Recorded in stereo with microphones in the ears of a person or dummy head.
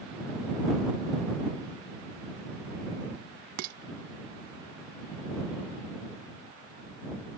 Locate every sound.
3.6 s dishes clattering: 55° right (ahead or behind)